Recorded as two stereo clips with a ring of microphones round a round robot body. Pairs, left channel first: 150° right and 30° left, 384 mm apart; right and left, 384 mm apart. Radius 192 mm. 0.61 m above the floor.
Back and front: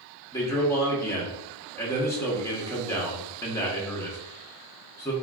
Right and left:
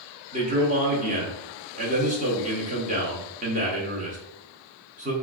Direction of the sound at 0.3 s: 135° left.